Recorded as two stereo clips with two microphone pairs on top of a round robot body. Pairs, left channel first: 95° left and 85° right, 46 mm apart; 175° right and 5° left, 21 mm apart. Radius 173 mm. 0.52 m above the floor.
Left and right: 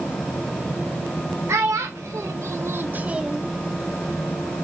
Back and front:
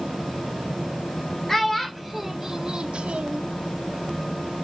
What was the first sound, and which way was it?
A child speaking, 95° right.